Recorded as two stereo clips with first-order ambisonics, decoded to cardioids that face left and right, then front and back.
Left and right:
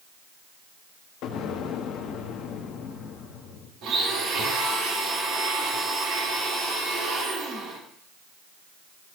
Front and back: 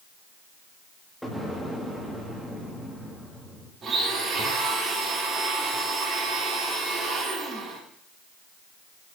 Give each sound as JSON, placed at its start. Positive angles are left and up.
{"t": 1.2, "sound": "an explosion", "azimuth_deg": 85, "distance_m": 1.2}
{"t": 3.8, "sound": "a blender", "azimuth_deg": -120, "distance_m": 2.5}